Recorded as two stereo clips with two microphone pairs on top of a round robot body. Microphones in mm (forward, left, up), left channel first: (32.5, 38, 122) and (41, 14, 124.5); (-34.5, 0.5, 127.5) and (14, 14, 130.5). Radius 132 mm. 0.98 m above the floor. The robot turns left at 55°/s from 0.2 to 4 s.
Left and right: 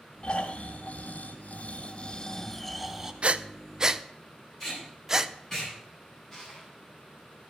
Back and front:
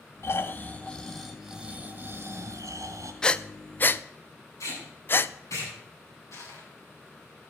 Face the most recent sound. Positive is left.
turn(degrees=180)